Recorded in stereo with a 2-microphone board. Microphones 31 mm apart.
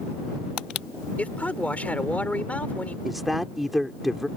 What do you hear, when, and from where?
1.2 s a man speaking: 50° left (ahead or behind)
3.0 s a woman speaking: centre (ahead or behind)